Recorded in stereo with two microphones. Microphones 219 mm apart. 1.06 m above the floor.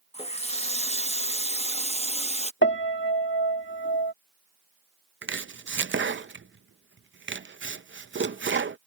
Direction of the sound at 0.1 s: 30° left (ahead or behind).